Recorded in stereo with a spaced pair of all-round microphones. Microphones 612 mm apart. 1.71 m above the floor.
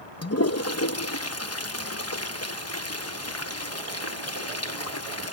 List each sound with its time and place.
0.2 s a toilet flushing: 25° left (ahead or behind)